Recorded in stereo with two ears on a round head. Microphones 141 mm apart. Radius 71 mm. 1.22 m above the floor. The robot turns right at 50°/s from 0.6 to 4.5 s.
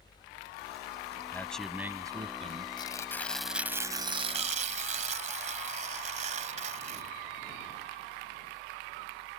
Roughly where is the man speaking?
Behind.